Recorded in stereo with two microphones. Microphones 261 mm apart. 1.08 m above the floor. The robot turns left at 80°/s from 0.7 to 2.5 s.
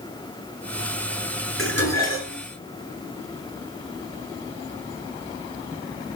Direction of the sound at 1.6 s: 125° left.